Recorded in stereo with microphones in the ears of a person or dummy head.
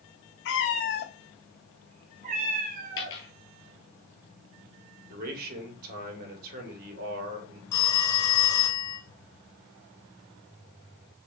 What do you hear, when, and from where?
0.5 s a cat meowing: 55° left (ahead or behind), 1.2 m; by 3.2 s 50° right (ahead or behind), 2 m
3.0 s a dropped coin: 20° left (ahead or behind), 1.5 m
5.1 s a man speaking: 55° right (ahead or behind), 2.5 m
7.7 s a phone ringing: 20° left (ahead or behind), 0.8 m